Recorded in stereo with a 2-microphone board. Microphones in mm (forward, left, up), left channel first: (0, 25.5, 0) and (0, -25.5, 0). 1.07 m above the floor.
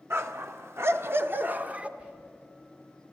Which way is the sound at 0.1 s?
55° right (ahead or behind).